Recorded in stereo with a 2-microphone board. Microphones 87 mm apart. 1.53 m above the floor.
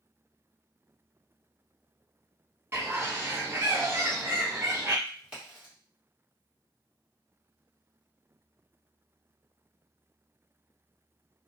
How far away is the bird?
About 0.8 m.